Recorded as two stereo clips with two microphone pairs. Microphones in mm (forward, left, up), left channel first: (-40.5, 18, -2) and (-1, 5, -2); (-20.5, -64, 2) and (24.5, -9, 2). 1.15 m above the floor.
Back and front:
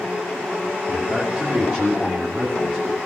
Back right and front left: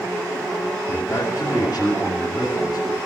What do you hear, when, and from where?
0.9 s a man speaking: 100° right, 8.5 m; by 3.0 s 105° right, 11.5 m